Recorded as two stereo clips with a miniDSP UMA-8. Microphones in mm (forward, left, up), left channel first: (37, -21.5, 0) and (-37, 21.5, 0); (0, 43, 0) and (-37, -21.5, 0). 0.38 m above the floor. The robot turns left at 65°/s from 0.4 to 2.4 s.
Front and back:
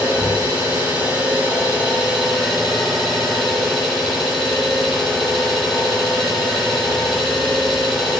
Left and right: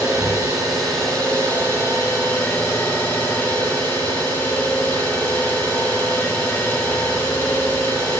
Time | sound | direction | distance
0.0 | an engine running | straight behind | 1.2 m